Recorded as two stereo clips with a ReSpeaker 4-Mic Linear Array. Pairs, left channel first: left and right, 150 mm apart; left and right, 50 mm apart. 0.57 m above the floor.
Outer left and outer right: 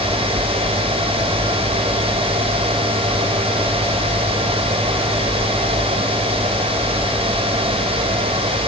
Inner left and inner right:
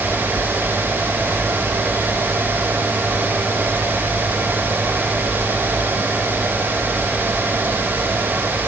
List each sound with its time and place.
Only background noise.